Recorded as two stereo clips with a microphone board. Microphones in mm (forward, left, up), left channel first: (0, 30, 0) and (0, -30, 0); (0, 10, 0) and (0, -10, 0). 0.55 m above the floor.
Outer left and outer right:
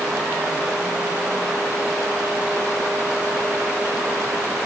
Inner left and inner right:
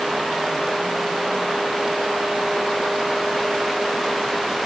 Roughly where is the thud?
No thud in this recording.